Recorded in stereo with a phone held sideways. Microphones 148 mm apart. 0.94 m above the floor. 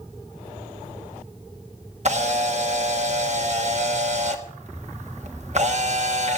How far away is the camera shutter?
About 1.2 m.